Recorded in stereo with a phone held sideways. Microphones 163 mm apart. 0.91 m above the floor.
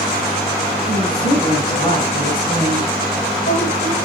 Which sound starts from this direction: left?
A woman speaking, at 0.9 s.